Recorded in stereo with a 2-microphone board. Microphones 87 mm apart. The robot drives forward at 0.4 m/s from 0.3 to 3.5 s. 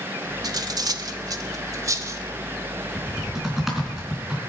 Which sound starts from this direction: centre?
Typing on a keyboard, at 3.0 s.